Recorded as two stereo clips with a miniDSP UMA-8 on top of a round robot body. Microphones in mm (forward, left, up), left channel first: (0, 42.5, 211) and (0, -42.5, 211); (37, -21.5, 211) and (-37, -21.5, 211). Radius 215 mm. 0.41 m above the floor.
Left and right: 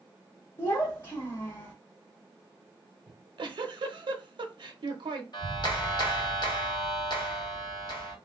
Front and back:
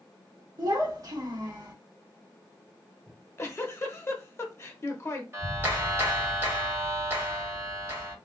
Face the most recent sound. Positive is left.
turn(degrees=120)